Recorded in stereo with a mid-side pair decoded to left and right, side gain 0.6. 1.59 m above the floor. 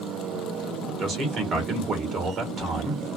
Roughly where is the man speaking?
Ahead right.